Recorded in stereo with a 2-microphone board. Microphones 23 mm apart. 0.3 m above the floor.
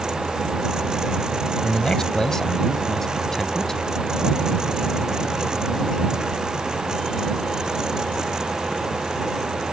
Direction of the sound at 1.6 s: 30° left (ahead or behind).